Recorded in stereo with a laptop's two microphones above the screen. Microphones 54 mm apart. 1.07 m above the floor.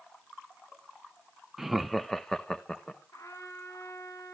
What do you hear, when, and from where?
1.6 s laughter: 10° right (ahead or behind), 0.6 m; by 3.0 s 15° left (ahead or behind), 1.4 m
3.1 s a trumpet: 70° left (ahead or behind), 4 m